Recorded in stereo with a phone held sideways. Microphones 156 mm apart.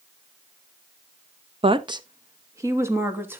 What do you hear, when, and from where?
1.6 s a woman speaking: 35° right (ahead or behind), 0.7 m; by 3.4 s 15° right (ahead or behind), 1.8 m